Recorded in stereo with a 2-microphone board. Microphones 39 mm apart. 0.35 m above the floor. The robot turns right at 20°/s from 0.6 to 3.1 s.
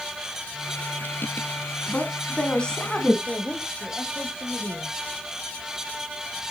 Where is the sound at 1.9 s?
35° left (ahead or behind), 3.5 m; by 3.2 s 15° left (ahead or behind), 3.5 m.